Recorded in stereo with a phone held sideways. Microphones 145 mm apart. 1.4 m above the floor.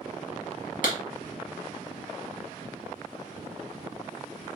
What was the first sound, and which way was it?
A clap, 65° left (ahead or behind).